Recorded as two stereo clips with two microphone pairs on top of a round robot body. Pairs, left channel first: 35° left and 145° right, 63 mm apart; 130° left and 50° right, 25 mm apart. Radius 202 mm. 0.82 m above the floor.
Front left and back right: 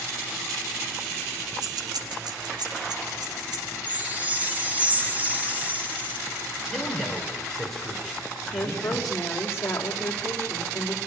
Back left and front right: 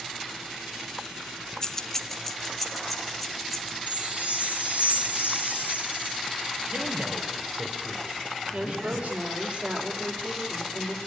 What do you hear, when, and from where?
1.6 s keys jangling: 165° right, 0.8 m; by 3.8 s 140° right, 3 m
3.9 s a chime: 70° right, 2.0 m
6.7 s a man speaking: 50° right, 4.5 m
8.5 s a woman speaking: 15° right, 3.5 m